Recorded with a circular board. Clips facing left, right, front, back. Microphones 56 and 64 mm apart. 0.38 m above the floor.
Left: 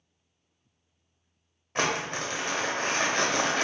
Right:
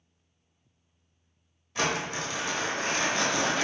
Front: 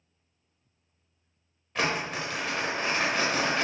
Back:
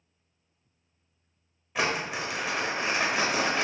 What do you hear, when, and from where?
1.8 s crumpling: 100° left, 0.9 m